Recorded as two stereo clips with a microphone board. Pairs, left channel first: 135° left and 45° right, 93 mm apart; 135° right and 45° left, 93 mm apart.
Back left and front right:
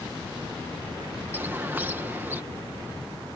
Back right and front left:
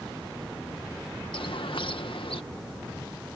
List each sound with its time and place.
1.3 s a bird: 115° right